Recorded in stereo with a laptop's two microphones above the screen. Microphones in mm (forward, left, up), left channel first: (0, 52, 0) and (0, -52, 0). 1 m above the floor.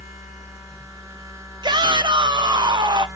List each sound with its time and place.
0.0 s a machine running: 35° right (ahead or behind), 1.6 m
1.6 s a shout: 45° right (ahead or behind), 0.6 m